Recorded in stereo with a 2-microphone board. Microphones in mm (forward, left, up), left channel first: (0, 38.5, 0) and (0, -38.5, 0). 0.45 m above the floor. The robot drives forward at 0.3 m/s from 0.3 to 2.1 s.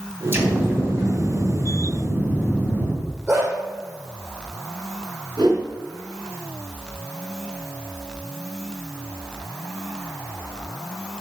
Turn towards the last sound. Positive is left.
turn(degrees=-65)  # may be behind; listen again after turning